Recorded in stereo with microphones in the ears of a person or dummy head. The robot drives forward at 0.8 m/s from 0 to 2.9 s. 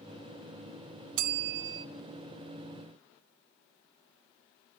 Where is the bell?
50° right (ahead or behind), 0.8 m; by 1.9 s 70° right (ahead or behind), 0.7 m.